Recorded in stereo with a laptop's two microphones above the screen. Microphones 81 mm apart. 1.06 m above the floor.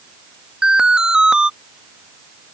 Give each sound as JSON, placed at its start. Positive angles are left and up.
{"t": 0.6, "sound": "an alarm", "side_deg": -10}